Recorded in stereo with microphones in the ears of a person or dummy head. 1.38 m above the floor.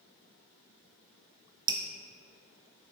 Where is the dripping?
25° right (ahead or behind), 0.5 m.